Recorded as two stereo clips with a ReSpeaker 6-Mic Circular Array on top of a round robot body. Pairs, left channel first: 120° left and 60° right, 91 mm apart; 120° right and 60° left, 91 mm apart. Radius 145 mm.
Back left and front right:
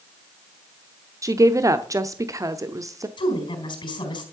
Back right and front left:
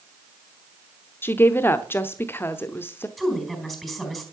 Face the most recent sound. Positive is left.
turn(degrees=150)